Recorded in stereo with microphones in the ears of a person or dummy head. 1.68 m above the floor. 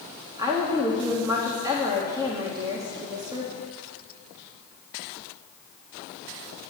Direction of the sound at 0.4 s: 20° right (ahead or behind).